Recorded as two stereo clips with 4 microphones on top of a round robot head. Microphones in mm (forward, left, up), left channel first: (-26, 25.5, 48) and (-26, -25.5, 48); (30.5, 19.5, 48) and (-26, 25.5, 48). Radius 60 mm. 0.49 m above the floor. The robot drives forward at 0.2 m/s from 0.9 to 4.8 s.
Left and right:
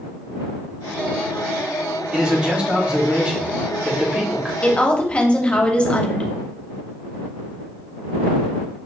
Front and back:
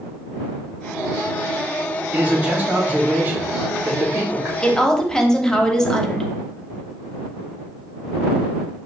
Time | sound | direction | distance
2.1 | a man speaking | 145° right | 1.5 m
4.6 | a woman speaking | 55° left | 1.0 m